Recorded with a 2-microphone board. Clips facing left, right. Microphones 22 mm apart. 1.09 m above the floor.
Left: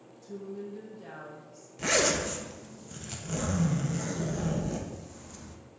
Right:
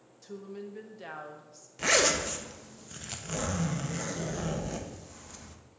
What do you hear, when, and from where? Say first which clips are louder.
0.2 s a woman speaking: left 2 dB; 50° right (ahead or behind), 1.0 m
1.8 s a zipper: right 1 dB; 20° right (ahead or behind), 0.7 m